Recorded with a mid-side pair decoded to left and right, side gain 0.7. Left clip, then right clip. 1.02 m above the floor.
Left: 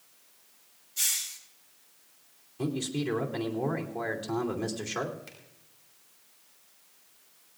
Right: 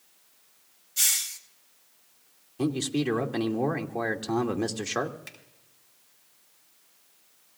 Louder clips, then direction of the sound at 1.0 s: Right 4 dB; 40° right.